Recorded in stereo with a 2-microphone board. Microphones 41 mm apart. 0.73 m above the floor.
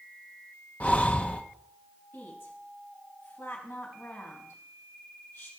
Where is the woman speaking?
80° left, 4 m.